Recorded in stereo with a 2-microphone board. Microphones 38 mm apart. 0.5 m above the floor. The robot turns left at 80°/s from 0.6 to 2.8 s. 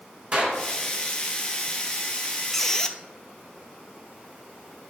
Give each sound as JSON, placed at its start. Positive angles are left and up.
{"t": 0.3, "sound": "a clap", "side_deg": -40, "distance_m": 4.0}
{"t": 2.5, "sound": "a squeak", "side_deg": 5, "distance_m": 0.5}